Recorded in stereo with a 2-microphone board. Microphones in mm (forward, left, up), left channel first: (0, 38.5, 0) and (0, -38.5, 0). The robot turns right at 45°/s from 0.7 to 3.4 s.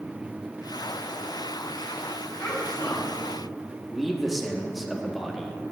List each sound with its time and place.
2.4 s a child speaking: 10° left, 2.5 m; by 3.3 s 50° left, 2.5 m
3.9 s a man speaking: centre (ahead or behind), 0.6 m